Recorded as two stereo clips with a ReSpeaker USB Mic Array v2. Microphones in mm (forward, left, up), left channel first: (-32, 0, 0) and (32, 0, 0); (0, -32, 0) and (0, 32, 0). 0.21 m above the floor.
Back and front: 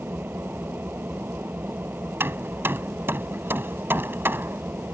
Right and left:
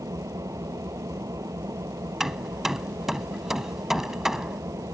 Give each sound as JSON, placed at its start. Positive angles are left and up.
{"t": 0.0, "sound": "an engine running", "azimuth_deg": 60}
{"t": 2.2, "sound": "hammering", "azimuth_deg": 10}